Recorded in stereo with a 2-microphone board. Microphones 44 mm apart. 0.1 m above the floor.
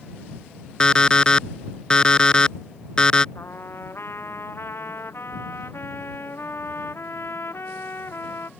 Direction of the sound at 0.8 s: 20° left (ahead or behind).